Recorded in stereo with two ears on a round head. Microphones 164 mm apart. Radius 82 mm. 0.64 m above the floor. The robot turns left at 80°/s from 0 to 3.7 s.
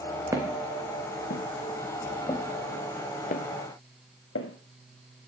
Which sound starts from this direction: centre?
Footsteps, at 0.3 s.